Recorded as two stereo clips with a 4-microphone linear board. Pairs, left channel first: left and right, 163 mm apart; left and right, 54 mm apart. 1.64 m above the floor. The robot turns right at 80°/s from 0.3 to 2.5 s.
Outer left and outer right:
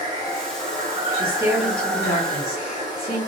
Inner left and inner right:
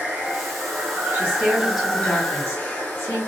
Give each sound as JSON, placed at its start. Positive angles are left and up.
{"t": 0.0, "sound": "running water", "azimuth_deg": -125, "distance_m": 2.0}
{"t": 1.1, "sound": "a woman speaking", "azimuth_deg": -50, "distance_m": 1.4}